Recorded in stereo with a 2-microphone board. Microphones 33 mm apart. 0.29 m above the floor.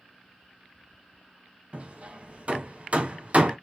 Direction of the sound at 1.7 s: 40° right (ahead or behind).